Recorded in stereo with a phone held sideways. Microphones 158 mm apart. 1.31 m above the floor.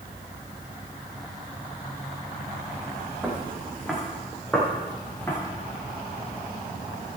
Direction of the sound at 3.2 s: 10° right (ahead or behind).